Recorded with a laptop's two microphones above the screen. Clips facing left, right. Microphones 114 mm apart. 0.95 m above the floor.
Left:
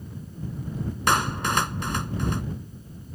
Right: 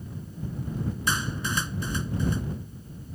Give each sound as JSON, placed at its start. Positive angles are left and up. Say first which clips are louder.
{"t": 1.1, "sound": "a clap", "louder": "left 9 dB", "side_deg": 70}